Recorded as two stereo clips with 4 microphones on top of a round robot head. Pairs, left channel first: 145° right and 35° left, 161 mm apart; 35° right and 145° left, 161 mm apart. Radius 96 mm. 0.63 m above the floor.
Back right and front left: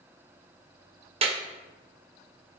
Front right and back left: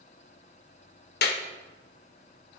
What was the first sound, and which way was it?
A clap, 20° right.